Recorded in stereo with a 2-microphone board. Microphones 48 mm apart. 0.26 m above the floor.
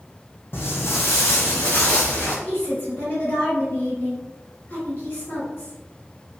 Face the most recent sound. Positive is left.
turn(degrees=50)  # may be behind; listen again after turning